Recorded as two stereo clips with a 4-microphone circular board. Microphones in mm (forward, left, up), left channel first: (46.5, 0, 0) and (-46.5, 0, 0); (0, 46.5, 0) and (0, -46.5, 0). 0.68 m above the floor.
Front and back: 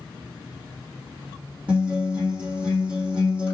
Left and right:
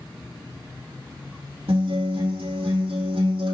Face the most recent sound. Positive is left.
turn(degrees=-100)